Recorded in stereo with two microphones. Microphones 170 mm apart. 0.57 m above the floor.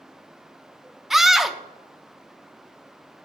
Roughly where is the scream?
Centre.